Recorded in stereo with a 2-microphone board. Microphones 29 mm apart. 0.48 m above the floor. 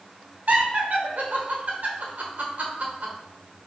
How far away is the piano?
I don't hear a piano.